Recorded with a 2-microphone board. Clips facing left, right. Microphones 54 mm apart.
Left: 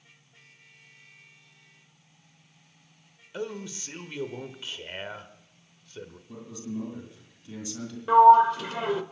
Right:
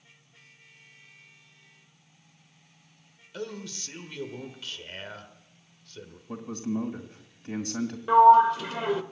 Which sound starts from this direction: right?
A man speaking, at 6.3 s.